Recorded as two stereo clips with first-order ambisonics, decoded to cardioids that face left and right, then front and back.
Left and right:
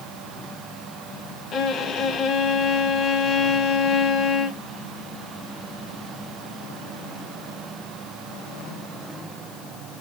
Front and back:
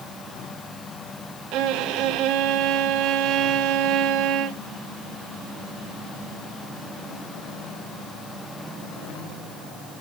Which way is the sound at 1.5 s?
150° left.